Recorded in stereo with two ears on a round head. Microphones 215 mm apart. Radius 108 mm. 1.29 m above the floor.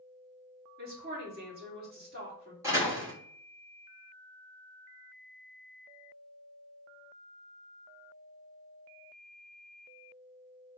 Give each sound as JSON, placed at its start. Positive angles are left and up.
{"t": 0.8, "sound": "a woman speaking", "side_deg": -40, "distance_m": 2.5}
{"t": 2.6, "sound": "a door slam", "side_deg": -10, "distance_m": 2.5}